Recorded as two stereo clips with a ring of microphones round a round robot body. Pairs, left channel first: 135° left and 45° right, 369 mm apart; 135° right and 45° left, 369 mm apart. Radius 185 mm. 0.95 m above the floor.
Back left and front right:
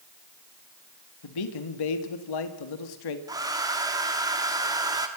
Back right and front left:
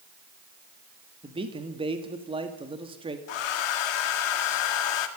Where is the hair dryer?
125° right, 1.8 m.